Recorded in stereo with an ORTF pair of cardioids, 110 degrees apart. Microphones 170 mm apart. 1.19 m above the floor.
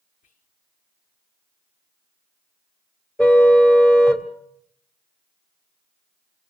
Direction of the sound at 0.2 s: 50° left.